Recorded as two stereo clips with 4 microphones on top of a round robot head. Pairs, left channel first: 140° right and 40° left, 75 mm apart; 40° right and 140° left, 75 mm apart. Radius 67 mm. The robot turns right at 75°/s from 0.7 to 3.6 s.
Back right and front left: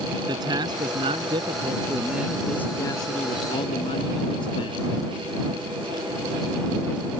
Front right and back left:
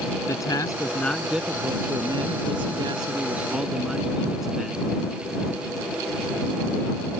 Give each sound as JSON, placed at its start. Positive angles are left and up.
{"t": 0.3, "sound": "a man speaking", "azimuth_deg": 10}